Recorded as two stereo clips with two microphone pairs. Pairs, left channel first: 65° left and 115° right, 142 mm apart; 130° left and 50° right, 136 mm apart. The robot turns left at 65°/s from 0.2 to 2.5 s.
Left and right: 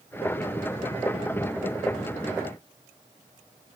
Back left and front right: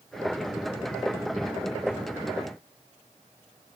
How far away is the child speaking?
I don't hear a child speaking.